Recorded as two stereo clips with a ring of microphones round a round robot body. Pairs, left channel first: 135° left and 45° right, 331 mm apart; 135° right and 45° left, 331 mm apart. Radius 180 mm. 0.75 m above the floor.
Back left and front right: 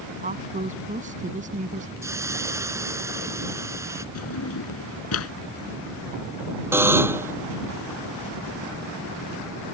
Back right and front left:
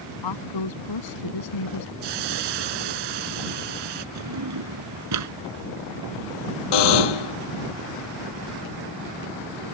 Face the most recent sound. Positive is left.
turn(degrees=-130)